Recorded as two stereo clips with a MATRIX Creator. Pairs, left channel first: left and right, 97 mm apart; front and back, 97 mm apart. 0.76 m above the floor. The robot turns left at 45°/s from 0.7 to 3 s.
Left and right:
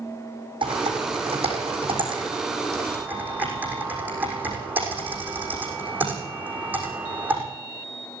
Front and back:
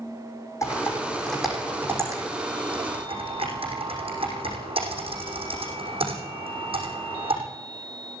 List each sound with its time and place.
0.6 s typing on a keyboard: 60° right, 6 m; by 7.4 s 165° right, 6 m